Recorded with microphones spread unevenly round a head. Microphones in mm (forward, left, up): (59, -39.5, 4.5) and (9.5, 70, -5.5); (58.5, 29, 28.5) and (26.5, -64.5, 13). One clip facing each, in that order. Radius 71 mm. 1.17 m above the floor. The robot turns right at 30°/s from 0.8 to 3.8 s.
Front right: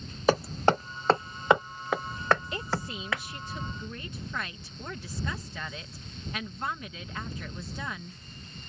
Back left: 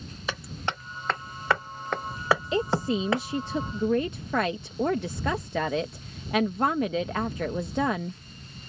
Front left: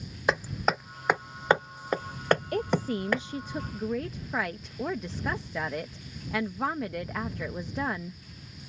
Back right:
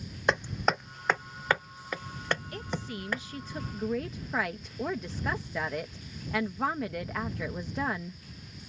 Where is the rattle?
I don't hear a rattle.